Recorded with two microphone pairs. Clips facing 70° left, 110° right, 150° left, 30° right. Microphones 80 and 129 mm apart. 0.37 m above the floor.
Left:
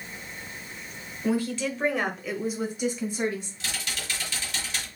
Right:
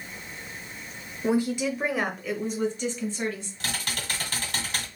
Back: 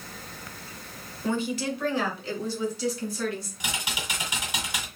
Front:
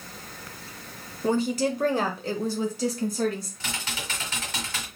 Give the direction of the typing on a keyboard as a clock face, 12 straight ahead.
5 o'clock.